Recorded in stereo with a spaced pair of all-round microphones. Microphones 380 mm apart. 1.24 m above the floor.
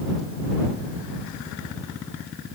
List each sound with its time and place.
Only background noise.